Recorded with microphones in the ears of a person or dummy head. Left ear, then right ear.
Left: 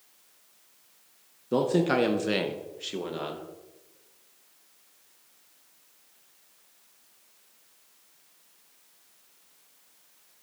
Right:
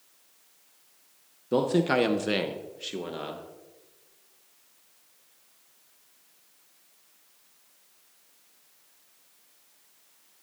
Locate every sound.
1.5 s a man speaking: 10° right (ahead or behind), 0.7 m; by 3.5 s 5° left (ahead or behind), 1.5 m